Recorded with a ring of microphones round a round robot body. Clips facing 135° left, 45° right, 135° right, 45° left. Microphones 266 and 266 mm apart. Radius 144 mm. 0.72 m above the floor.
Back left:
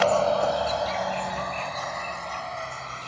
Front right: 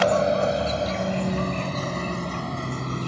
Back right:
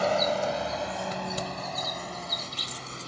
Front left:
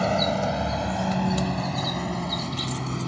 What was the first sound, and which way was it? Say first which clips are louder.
A vehicle: front right 2 dB, front left 2 dB; 30° left.